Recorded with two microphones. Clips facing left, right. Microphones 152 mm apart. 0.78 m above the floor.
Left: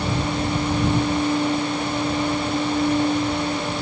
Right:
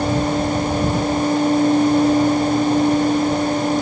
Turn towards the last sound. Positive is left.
No sound to turn to.